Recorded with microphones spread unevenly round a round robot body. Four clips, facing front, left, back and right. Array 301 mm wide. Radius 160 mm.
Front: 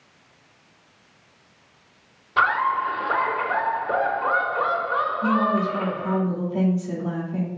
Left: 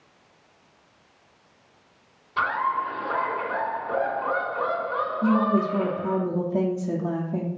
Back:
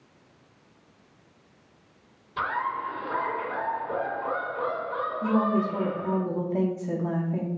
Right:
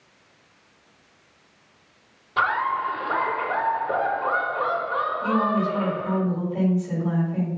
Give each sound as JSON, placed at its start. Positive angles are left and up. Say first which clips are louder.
{"t": 2.4, "sound": "laughter", "louder": "right 2 dB, front 8 dB", "azimuth_deg": -20, "distance_m": 2.5}
{"t": 5.2, "sound": "a woman speaking", "louder": "left 3 dB, front 1 dB", "azimuth_deg": 100, "distance_m": 1.7}